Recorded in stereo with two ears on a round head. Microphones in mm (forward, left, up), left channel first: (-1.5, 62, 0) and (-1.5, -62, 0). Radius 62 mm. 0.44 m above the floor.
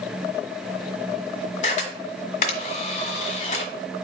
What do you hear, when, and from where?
1.6 s a camera shutter: 55° left (ahead or behind), 1.0 m